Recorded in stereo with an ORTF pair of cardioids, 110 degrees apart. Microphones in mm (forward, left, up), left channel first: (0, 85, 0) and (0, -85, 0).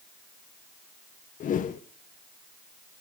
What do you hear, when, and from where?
1.4 s a whoosh: 50° left, 1.4 m